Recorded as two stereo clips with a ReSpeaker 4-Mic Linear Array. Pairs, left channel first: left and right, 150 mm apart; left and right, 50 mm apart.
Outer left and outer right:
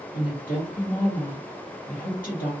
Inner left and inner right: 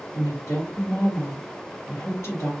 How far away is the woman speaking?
About 1.4 m.